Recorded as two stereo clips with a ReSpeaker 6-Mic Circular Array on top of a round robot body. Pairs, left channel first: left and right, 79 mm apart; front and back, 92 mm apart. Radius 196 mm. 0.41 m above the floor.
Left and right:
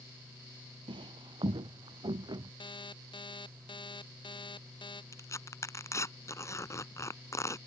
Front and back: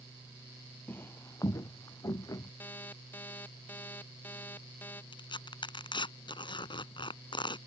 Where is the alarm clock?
70° left.